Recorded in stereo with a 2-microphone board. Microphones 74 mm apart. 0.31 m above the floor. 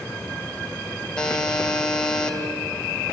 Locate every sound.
1.2 s a buzzer: 10° left (ahead or behind), 1.9 m